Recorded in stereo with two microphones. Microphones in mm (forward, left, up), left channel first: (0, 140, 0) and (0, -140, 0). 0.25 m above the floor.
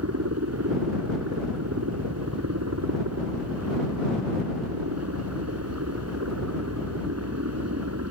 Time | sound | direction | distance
0.0 | a helicopter | 65° right (ahead or behind) | ?